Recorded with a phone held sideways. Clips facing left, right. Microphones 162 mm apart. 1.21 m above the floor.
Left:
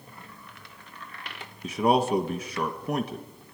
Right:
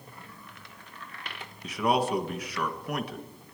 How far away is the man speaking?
About 1.6 m.